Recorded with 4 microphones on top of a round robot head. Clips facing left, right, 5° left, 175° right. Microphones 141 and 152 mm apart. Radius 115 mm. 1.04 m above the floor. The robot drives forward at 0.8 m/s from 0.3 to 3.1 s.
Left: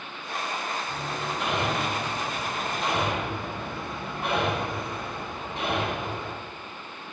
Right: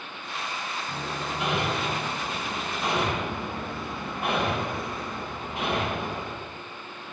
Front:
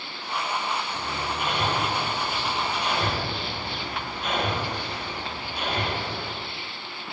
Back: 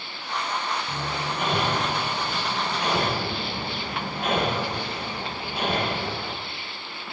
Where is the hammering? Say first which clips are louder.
Left 1 dB, back 1 dB; 175° right, 6 m.